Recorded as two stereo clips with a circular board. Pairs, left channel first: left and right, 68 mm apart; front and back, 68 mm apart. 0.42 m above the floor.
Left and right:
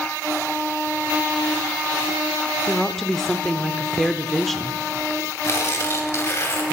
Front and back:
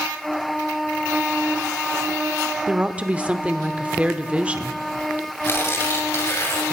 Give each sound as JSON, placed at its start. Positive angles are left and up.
{"t": 2.7, "sound": "a woman speaking", "azimuth_deg": 170, "distance_m": 0.8}
{"t": 5.4, "sound": "tearing paper", "azimuth_deg": 45, "distance_m": 2.5}